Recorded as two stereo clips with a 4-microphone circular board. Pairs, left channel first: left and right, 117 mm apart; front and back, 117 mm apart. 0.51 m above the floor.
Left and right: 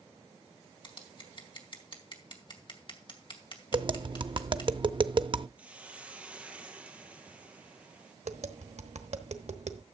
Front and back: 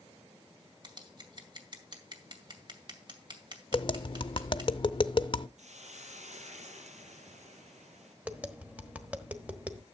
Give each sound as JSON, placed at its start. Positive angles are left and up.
{"t": 0.8, "sound": "scissors", "azimuth_deg": 130, "distance_m": 2.0}
{"t": 3.7, "sound": "tapping", "azimuth_deg": -45, "distance_m": 0.5}
{"t": 5.6, "sound": "a hiss", "azimuth_deg": -170, "distance_m": 1.9}
{"t": 8.2, "sound": "tapping", "azimuth_deg": -105, "distance_m": 1.2}